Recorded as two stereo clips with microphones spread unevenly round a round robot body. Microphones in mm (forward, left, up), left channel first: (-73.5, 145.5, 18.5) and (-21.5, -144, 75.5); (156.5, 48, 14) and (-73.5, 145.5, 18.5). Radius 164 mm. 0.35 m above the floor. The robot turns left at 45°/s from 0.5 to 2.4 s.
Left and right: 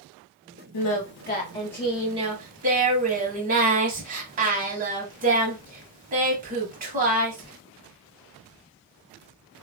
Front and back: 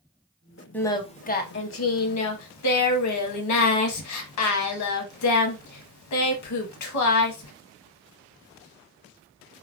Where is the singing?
60° left, 0.7 m; by 7.5 s 15° right, 0.7 m.